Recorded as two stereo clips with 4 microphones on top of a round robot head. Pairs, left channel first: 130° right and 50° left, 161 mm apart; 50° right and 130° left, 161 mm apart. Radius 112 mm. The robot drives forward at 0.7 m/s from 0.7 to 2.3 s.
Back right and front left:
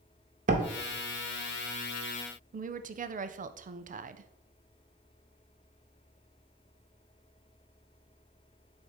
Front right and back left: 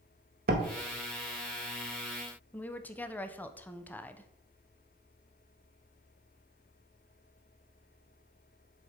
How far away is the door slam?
About 0.7 m.